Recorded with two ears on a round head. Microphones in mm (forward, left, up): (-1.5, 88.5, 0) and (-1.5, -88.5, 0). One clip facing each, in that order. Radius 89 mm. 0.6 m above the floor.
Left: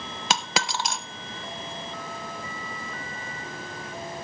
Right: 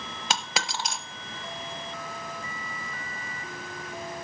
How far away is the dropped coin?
About 0.9 m.